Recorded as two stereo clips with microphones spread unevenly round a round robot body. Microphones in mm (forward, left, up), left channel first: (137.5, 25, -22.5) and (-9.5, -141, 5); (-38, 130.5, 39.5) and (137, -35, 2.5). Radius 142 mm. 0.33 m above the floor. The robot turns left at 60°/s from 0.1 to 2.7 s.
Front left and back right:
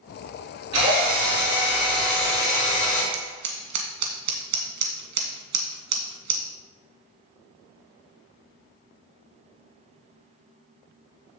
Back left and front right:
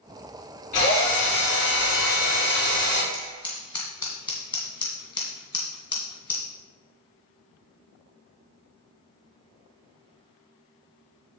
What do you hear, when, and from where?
0.7 s a drill: 155° right, 4.5 m; by 3.0 s 85° left, 4.5 m
3.1 s scissors: 145° right, 1.8 m